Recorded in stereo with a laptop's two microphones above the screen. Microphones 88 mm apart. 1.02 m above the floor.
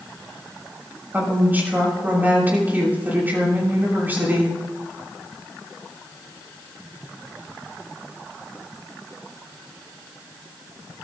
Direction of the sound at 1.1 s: 20° right (ahead or behind).